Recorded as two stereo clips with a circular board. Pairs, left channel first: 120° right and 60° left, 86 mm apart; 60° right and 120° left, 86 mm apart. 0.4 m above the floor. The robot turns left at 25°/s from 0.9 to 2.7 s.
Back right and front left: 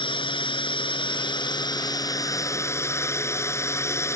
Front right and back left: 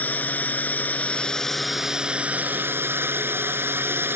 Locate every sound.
0.0 s a drone: 130° right; by 4.2 s 175° right